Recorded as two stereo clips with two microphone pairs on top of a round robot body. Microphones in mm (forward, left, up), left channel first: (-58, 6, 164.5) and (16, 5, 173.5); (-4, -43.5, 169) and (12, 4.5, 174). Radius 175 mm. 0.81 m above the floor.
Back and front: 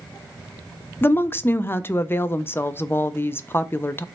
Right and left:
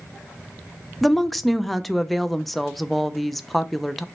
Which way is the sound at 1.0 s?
175° left.